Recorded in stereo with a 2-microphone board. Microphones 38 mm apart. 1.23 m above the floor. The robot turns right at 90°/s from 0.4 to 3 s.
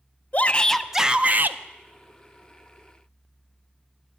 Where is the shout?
140° left, 0.5 m; by 1.6 s 115° right, 0.5 m.